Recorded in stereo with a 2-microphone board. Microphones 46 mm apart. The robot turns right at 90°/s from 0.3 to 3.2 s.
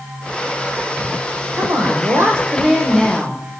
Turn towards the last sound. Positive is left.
turn(degrees=25)